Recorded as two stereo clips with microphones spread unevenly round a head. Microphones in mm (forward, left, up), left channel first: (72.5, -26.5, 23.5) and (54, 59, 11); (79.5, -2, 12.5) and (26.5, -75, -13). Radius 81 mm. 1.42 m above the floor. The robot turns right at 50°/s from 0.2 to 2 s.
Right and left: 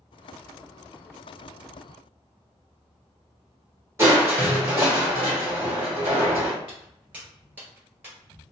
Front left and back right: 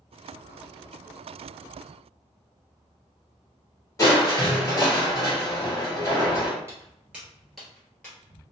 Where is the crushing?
40° left, 1.5 m.